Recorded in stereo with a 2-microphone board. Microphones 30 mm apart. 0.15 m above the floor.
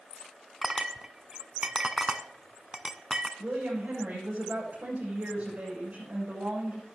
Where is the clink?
25° right (ahead or behind), 0.8 m.